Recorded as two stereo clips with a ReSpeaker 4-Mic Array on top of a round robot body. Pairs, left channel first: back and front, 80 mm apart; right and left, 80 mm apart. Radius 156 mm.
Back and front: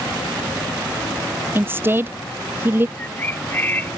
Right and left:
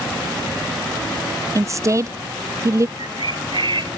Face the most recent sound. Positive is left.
turn(degrees=115)